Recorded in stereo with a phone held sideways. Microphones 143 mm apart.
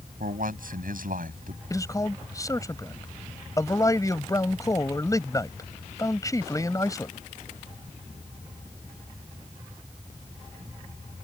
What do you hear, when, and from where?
0.2 s a man speaking: 80° right
1.7 s a man speaking: 25° left (ahead or behind)